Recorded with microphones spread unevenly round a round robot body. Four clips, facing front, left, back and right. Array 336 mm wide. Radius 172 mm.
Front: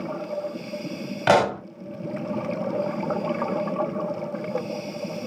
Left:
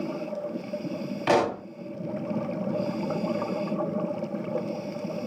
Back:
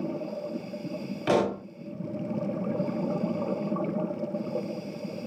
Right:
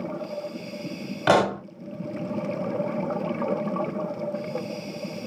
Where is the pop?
25° right, 0.7 m.